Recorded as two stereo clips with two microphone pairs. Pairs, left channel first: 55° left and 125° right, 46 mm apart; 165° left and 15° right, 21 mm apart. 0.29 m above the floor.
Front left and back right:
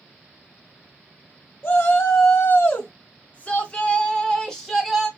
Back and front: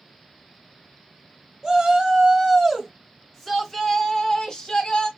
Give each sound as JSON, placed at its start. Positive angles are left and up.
{"t": 1.6, "sound": "a shout", "azimuth_deg": 40, "distance_m": 1.9}